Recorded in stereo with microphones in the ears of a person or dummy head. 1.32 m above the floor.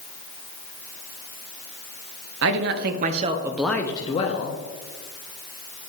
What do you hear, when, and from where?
2.4 s a man speaking: 65° right (ahead or behind), 0.9 m; by 4.6 s 40° left (ahead or behind), 0.9 m